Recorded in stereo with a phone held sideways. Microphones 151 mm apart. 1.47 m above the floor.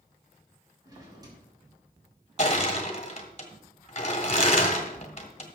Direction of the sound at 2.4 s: 45° left (ahead or behind).